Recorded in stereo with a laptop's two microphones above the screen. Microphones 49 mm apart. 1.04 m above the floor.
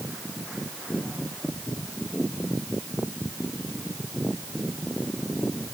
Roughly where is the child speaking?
No child speaking in this recording.